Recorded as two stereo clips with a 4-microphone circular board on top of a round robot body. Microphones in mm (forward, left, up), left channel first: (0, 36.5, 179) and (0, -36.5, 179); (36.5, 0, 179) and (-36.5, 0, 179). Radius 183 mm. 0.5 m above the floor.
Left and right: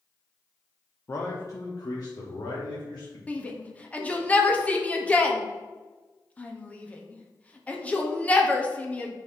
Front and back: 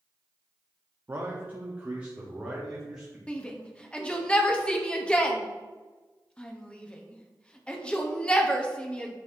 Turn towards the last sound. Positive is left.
turn(degrees=50)